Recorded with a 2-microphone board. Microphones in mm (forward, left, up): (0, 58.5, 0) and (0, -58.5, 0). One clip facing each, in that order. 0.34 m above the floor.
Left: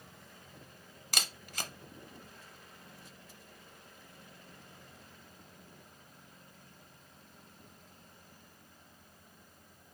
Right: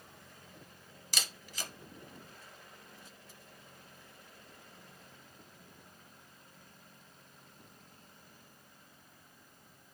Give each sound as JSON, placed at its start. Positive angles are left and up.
{"t": 1.1, "sound": "a camera shutter", "side_deg": 60, "distance_m": 0.7}